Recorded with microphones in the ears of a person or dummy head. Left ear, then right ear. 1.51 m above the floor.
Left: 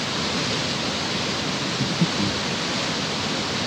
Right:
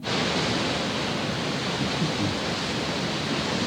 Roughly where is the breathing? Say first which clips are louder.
Left 3 dB; left.